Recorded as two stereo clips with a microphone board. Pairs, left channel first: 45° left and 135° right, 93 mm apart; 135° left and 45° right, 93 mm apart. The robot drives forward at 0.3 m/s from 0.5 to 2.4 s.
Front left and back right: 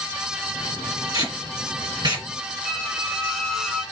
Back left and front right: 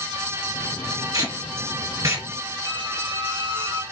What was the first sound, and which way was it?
Tape being pulled, 90° right.